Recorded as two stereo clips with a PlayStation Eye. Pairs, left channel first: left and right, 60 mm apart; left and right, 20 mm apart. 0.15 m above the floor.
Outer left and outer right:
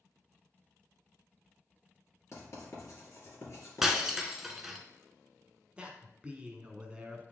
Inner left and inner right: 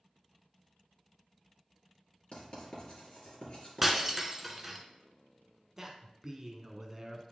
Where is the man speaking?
20° right (ahead or behind), 1.1 m.